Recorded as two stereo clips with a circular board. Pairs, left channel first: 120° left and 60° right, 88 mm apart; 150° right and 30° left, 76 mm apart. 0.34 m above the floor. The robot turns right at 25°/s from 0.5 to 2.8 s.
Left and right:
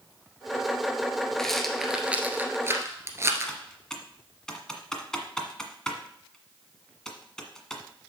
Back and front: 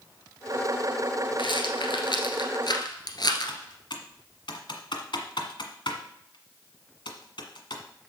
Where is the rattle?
155° right, 1.5 m; by 3.5 s 120° right, 1.5 m.